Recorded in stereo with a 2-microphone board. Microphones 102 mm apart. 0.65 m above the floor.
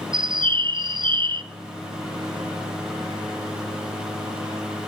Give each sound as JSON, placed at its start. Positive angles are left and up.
{"t": 0.1, "sound": "a bird", "side_deg": -50, "distance_m": 0.5}